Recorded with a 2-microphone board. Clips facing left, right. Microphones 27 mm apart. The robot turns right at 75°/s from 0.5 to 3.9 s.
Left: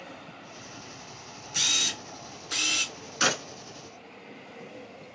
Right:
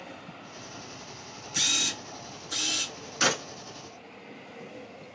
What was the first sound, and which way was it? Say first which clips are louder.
A camera shutter: left 1 dB; 5° left.